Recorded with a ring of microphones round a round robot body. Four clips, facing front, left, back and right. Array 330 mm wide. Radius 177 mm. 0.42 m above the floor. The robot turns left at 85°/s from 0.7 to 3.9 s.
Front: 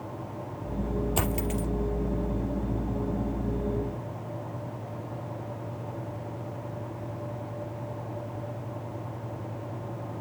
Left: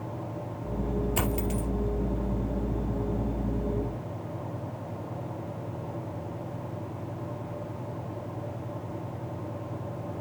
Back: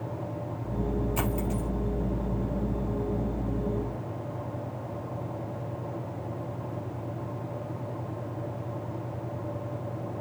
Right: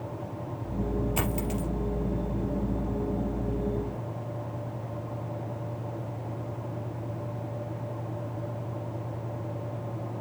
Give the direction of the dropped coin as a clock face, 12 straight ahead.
11 o'clock.